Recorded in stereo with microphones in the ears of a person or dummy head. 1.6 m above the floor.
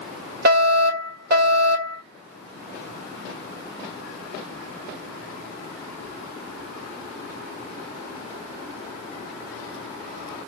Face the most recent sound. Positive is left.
turn(degrees=-65)  # may be behind; listen again after turning